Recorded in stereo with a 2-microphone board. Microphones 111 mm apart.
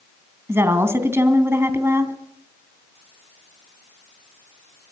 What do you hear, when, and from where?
0.5 s a woman speaking: 20° right (ahead or behind), 2.5 m